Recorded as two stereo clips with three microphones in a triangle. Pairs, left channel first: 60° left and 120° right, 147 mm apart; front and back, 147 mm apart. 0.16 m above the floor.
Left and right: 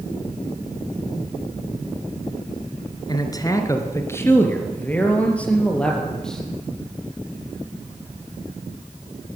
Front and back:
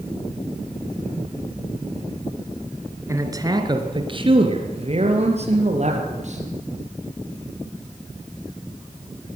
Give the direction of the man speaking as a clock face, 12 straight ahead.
8 o'clock.